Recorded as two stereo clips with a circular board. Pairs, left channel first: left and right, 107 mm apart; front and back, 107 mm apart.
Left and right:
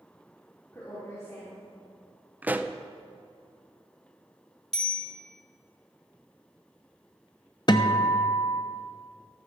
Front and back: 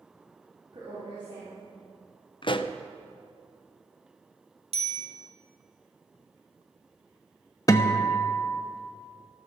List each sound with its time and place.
0.7 s a woman speaking: 150° left, 3 m
2.4 s a pop: 20° right, 0.5 m
4.7 s a bicycle bell: 175° left, 3 m
7.7 s a guitar: 50° left, 0.8 m